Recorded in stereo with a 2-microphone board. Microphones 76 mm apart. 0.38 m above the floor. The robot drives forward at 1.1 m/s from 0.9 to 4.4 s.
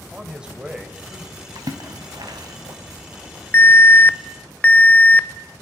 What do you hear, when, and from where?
0.1 s a man speaking: 10° right (ahead or behind), 2 m
1.6 s a splash: 60° right (ahead or behind), 2.5 m; by 2.8 s 65° right (ahead or behind), 2.5 m
3.5 s an alarm: 30° left (ahead or behind), 0.7 m; by 5.6 s 25° left (ahead or behind), 0.8 m